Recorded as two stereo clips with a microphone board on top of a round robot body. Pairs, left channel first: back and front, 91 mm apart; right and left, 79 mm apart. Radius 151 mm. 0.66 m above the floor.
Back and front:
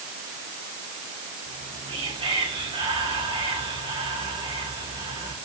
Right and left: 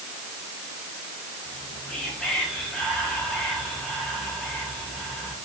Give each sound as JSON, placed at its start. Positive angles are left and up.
{"t": 1.4, "sound": "whispering", "azimuth_deg": -10, "distance_m": 3.5}